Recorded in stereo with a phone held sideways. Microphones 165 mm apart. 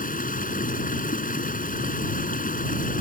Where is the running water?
60° left (ahead or behind).